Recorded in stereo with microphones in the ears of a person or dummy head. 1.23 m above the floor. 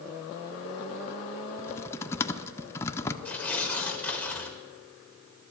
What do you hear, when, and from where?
1.6 s typing on a keyboard: 10° left (ahead or behind), 0.6 m
3.2 s tearing paper: 10° left (ahead or behind), 1.2 m